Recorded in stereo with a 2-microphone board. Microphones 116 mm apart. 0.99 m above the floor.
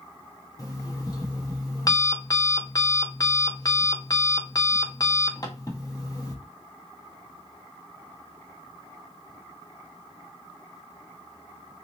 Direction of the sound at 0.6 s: 35° left (ahead or behind).